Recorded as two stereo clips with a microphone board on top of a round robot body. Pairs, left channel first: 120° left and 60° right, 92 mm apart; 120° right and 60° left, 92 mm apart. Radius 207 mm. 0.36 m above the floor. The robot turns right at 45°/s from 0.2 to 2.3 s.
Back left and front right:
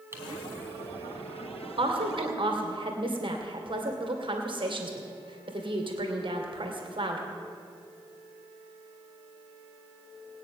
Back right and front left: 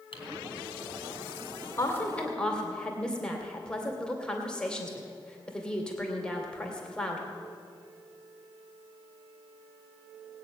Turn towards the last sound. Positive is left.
turn(degrees=-40)